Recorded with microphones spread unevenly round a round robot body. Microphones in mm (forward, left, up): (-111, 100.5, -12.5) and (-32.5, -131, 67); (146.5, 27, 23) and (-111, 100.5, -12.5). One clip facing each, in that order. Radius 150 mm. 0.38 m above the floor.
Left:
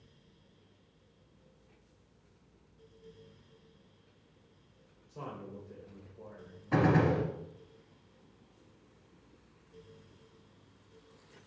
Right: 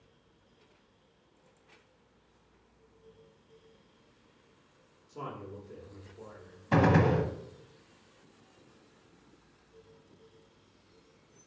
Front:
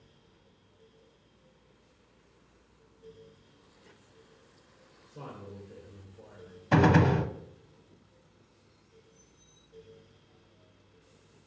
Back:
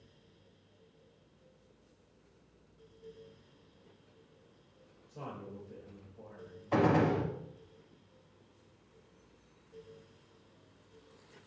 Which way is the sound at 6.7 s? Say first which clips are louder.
Right 2 dB, front 4 dB; 15° right.